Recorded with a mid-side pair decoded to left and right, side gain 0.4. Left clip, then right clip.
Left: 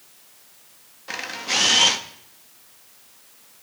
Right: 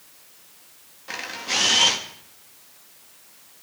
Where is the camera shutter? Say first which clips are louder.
Left 2 dB; 20° left, 3.5 m.